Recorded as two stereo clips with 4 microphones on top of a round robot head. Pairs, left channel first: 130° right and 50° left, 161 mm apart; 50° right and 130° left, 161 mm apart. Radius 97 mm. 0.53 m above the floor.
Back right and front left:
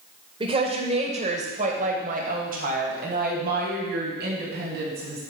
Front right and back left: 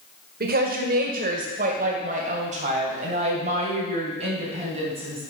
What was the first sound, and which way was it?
A woman speaking, 110° left.